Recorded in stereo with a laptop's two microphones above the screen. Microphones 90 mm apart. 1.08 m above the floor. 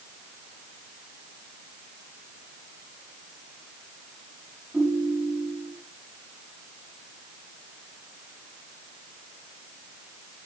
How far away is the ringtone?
About 7 m.